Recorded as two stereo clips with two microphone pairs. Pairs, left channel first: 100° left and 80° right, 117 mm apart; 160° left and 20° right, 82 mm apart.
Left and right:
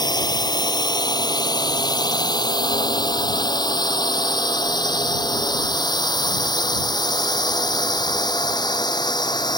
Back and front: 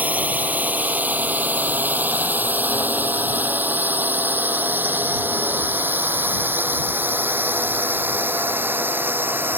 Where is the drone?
50° left; by 9.6 s 45° left.